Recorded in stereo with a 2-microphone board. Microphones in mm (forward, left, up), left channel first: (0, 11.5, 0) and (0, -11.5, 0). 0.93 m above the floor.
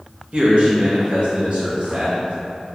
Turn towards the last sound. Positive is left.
turn(degrees=-50)  # may be behind; listen again after turning